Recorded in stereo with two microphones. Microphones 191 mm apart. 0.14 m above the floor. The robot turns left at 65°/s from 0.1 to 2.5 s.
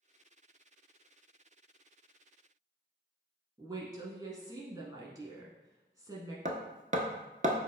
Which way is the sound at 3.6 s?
20° right (ahead or behind).